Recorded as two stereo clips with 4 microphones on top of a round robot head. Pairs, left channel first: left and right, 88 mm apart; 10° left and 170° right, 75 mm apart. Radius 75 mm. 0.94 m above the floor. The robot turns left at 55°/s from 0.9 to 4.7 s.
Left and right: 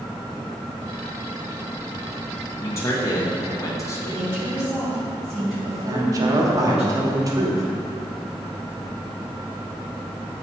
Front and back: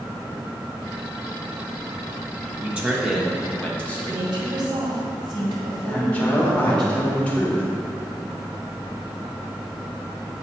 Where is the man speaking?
135° left, 1.1 m; by 4.2 s 45° left, 1.1 m.